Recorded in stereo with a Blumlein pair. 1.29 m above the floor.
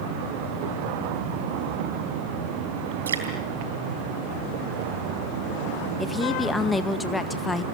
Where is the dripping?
65° right, 3.5 m.